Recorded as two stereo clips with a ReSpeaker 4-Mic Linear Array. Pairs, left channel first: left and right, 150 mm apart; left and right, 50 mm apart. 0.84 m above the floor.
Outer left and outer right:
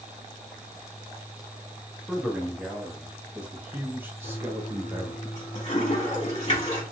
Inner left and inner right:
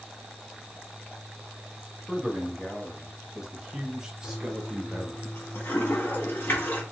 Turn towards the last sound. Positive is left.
turn(degrees=40)  # may be behind; listen again after turning